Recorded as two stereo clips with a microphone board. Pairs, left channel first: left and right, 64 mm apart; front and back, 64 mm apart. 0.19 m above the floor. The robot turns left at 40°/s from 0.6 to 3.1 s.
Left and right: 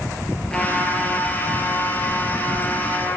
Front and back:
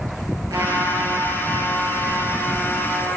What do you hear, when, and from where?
0.5 s a trumpet: 170° left, 2.5 m; by 3.2 s 70° left, 2.5 m